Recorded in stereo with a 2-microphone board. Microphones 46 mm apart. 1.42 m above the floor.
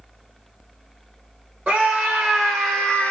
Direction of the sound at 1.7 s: 10° right (ahead or behind).